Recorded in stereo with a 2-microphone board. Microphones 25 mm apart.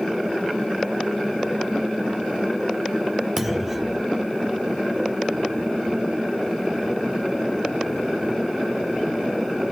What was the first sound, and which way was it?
A clunk, 10° right (ahead or behind).